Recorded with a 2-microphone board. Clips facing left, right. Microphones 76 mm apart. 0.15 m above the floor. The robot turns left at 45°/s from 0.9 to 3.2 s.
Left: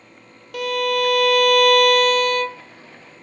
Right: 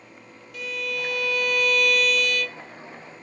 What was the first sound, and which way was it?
A violin, 105° left.